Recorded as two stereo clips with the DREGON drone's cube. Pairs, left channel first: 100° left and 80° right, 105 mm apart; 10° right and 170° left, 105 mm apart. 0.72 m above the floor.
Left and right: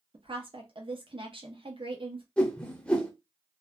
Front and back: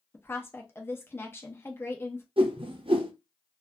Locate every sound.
0.1 s a woman speaking: 75° right, 0.7 m
2.4 s a whoosh: straight behind, 0.6 m